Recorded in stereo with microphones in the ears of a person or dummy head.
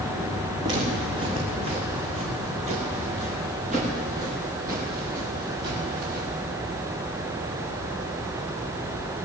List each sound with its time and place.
0.6 s footsteps: 30° right (ahead or behind), 4.5 m; by 6.3 s 55° right (ahead or behind), 10 m